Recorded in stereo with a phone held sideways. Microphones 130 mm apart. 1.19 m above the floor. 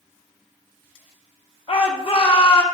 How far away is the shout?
About 1.3 m.